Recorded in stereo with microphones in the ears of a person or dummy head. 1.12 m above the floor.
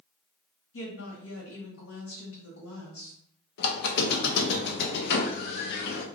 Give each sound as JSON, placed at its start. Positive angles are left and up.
{"t": 0.7, "sound": "a woman speaking", "side_deg": 70, "distance_m": 1.9}
{"t": 3.6, "sound": "a squeak", "side_deg": 55, "distance_m": 0.6}